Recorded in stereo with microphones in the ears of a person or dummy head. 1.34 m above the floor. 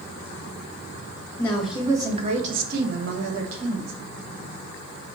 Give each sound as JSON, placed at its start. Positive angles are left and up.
{"t": 1.4, "sound": "a woman speaking", "side_deg": 10, "distance_m": 0.9}